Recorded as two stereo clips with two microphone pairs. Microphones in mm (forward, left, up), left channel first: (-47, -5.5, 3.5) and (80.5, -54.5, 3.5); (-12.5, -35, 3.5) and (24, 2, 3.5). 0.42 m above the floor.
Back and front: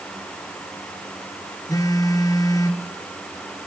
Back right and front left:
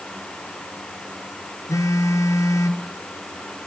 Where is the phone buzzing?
135° right, 1.5 m.